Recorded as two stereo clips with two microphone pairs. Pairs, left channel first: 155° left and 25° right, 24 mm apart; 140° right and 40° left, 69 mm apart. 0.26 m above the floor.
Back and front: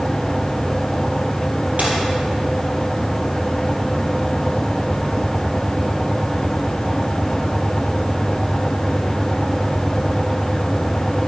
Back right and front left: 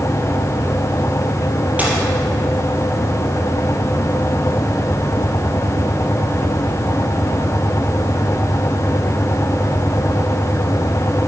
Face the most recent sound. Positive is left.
turn(degrees=-30)